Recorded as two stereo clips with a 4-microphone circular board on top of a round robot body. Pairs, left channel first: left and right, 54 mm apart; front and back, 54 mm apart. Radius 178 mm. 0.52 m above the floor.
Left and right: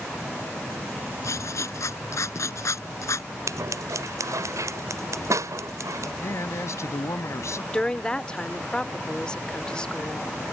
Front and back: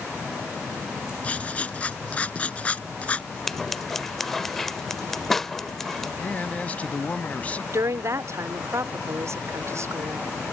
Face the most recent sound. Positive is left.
turn(degrees=160)